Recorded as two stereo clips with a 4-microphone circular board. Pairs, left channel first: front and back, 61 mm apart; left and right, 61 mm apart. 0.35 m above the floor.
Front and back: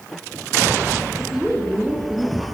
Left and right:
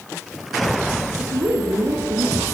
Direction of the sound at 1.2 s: 95° right.